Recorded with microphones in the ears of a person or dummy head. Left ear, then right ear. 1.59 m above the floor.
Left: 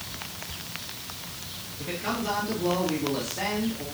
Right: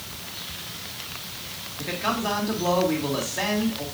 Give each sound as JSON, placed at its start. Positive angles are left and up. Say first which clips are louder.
{"t": 1.8, "sound": "a man speaking", "louder": "right 4 dB", "side_deg": -35, "distance_m": 2.5}